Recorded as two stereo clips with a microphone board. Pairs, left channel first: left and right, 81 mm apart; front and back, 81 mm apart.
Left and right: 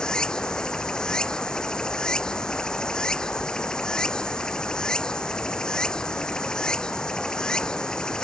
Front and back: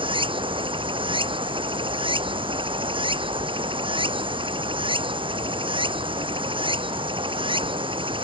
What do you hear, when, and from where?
0.0 s running water: 170° left